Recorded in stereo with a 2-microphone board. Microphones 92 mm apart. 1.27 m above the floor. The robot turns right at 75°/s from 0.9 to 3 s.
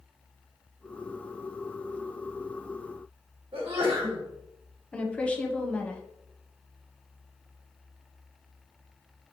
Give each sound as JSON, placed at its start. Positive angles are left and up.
{"t": 3.5, "sound": "a sneeze", "side_deg": -80, "distance_m": 1.7}
{"t": 4.9, "sound": "a woman speaking", "side_deg": 15, "distance_m": 0.8}